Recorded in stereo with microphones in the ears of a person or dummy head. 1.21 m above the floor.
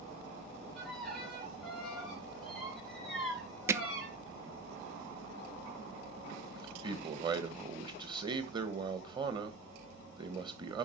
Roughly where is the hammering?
Centre.